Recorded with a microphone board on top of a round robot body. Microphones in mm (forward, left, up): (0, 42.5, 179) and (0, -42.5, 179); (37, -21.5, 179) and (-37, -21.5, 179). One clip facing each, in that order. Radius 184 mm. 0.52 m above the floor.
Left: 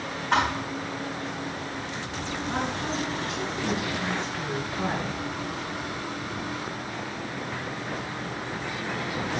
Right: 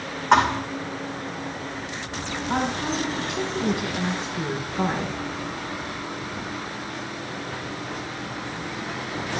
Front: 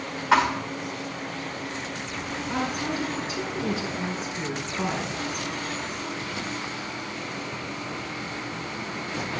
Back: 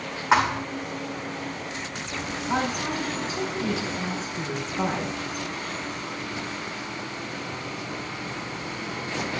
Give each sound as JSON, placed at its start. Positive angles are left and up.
{"t": 0.3, "sound": "a thud", "azimuth_deg": -110, "distance_m": 4.5}
{"t": 2.5, "sound": "a woman speaking", "azimuth_deg": -125, "distance_m": 7.0}